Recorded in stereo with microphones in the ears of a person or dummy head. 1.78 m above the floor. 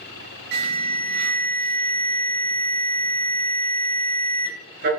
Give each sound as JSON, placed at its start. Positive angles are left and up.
{"t": 0.5, "sound": "an alarm", "side_deg": -55, "distance_m": 2.5}